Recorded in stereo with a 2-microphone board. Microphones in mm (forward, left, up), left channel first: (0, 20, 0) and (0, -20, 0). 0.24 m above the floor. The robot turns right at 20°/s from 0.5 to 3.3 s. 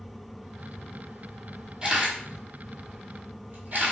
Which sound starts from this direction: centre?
A camera shutter, at 1.8 s.